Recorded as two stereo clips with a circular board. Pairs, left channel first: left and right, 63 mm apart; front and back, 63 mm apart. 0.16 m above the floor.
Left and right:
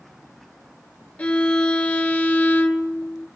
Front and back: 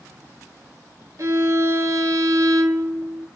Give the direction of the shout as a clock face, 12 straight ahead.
No shout in this recording.